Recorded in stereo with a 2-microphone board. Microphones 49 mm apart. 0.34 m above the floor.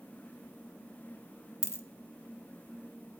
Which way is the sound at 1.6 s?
65° left (ahead or behind).